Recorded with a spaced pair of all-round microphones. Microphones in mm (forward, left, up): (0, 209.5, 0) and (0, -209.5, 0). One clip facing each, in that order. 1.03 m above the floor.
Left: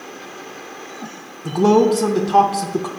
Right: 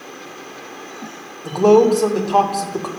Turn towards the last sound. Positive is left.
turn(degrees=35)  # may be behind; listen again after turning